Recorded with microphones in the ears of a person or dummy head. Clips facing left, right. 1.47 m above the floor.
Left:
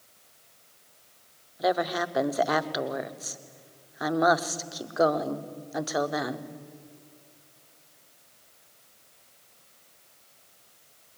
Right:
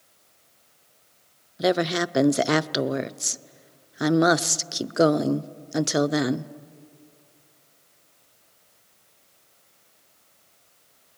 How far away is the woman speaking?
About 0.6 m.